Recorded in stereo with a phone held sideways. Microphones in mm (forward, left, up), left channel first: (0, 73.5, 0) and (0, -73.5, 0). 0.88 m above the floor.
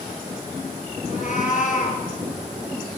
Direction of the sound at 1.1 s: 60° left (ahead or behind).